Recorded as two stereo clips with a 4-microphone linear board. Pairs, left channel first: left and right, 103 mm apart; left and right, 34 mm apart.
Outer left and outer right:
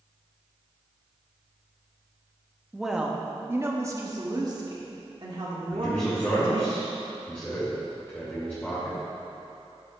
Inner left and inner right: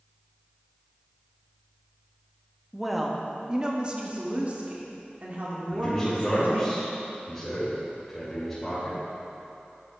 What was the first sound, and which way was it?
A woman speaking, centre (ahead or behind).